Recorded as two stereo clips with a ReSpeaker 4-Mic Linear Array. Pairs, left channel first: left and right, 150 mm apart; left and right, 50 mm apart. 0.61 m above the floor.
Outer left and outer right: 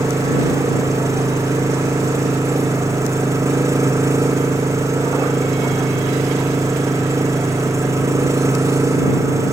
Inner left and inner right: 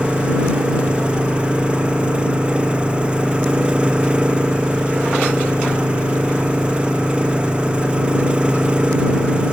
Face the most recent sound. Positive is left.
turn(degrees=-20)  # may be behind; listen again after turning